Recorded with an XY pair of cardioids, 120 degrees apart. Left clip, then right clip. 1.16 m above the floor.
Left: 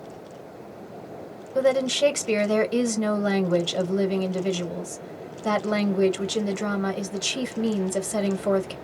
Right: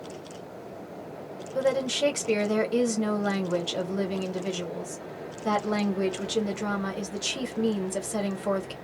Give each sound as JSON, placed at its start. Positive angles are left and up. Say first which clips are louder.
{"t": 1.6, "sound": "a woman speaking", "louder": "left 4 dB", "azimuth_deg": 20, "distance_m": 1.0}